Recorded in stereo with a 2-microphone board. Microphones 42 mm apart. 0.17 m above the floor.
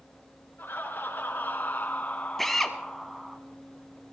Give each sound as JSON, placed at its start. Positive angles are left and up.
{"t": 0.6, "sound": "laughter", "side_deg": 55, "distance_m": 3.0}
{"t": 2.4, "sound": "a drill", "side_deg": 5, "distance_m": 1.0}